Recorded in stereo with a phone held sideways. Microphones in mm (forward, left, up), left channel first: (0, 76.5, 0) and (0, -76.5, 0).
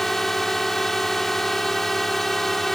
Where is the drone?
Centre (ahead or behind).